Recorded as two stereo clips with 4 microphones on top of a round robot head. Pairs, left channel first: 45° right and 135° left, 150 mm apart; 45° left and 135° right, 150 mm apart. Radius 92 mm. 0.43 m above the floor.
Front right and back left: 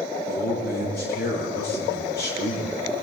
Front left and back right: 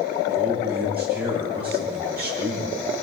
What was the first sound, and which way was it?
A man speaking, 55° right.